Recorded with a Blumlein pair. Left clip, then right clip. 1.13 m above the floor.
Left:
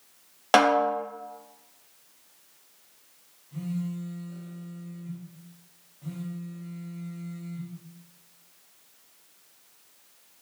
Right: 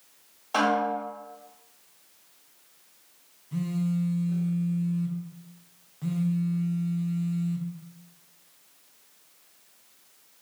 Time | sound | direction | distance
0.5 | a snare drum | 45° left | 0.6 m
3.5 | a phone buzzing | 35° right | 0.5 m